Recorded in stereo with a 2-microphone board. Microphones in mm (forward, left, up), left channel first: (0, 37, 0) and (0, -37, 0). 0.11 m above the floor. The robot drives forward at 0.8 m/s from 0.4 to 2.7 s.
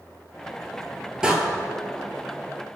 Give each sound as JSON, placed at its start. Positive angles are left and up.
{"t": 1.2, "sound": "a door slam", "side_deg": -10, "distance_m": 1.9}